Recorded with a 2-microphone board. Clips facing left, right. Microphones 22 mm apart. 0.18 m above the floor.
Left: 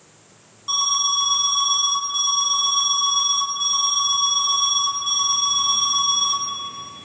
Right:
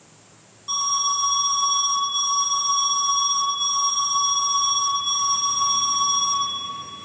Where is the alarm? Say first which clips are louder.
Left 2 dB; 15° left (ahead or behind), 2 m.